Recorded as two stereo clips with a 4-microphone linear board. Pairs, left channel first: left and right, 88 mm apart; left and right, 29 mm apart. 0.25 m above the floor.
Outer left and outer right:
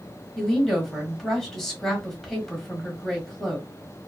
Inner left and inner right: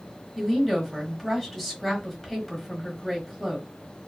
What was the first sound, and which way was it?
A woman speaking, 5° left (ahead or behind).